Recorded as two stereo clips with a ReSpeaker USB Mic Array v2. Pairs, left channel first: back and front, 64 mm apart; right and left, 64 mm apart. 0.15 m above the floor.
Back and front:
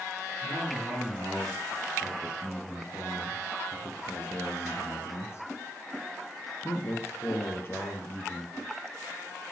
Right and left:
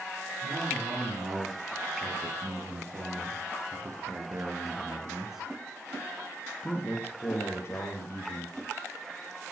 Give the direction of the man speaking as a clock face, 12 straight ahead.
9 o'clock.